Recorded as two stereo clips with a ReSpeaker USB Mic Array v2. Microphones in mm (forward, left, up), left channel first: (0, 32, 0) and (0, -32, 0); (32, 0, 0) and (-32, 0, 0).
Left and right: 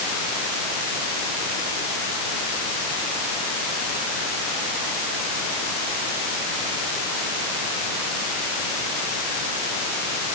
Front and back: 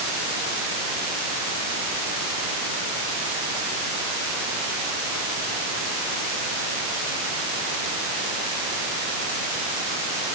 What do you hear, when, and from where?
Only background noise.